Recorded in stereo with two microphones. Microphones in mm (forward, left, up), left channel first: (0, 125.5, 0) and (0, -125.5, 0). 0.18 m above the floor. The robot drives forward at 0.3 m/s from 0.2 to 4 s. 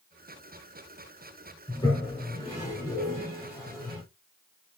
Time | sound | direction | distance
1.7 | a toilet flushing | 15° left (ahead or behind) | 2.5 m